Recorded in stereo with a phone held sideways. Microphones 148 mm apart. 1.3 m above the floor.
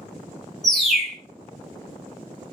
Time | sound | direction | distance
0.6 | a bird | centre (ahead or behind) | 0.6 m